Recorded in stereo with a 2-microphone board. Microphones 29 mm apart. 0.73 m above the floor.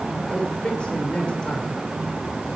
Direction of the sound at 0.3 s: 35° left (ahead or behind).